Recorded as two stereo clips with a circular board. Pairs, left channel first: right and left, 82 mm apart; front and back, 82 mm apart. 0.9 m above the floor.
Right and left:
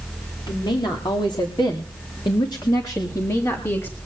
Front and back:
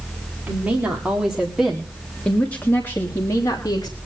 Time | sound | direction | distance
0.5 | a woman speaking | 110° right | 3 m